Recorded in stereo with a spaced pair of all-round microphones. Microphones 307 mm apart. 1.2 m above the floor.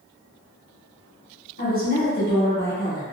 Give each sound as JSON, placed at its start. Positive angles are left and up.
{"t": 1.6, "sound": "a woman speaking", "side_deg": 30, "distance_m": 1.4}